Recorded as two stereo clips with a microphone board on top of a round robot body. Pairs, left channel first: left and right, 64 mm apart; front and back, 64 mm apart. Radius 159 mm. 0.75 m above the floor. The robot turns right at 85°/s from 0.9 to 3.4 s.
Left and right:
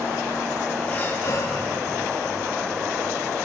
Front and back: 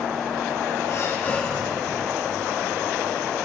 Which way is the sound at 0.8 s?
30° left.